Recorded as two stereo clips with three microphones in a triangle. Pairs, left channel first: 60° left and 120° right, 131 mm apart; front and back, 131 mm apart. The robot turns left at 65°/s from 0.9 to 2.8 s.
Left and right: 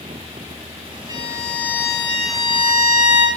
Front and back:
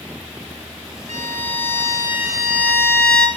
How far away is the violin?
About 1.8 m.